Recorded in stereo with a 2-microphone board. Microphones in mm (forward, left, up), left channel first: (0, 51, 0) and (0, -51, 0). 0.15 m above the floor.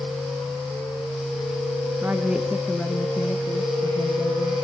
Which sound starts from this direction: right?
A woman speaking, at 2.0 s.